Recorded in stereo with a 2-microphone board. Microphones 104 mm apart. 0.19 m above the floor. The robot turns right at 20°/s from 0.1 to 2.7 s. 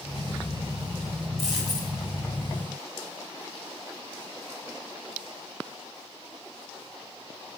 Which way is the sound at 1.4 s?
Centre (ahead or behind).